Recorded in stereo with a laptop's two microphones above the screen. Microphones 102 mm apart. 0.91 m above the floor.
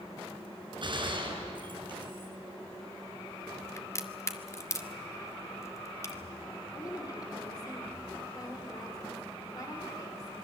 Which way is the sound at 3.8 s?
30° left (ahead or behind).